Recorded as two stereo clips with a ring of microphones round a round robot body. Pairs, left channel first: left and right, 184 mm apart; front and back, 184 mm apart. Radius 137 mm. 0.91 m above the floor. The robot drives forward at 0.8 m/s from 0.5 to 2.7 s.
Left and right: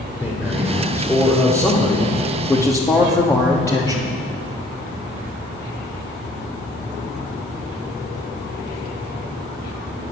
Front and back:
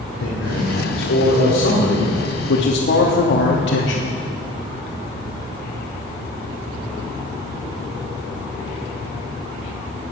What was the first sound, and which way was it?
A man speaking, 10° left.